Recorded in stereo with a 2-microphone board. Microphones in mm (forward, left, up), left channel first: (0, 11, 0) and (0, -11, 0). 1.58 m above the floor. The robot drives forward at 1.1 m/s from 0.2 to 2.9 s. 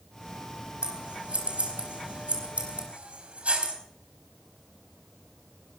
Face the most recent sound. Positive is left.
turn(degrees=-75)  # may be behind; listen again after turning